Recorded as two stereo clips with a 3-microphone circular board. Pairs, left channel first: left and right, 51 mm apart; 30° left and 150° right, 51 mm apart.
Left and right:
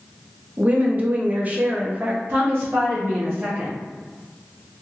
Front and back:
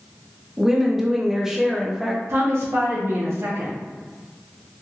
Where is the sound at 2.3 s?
135° right, 0.8 m.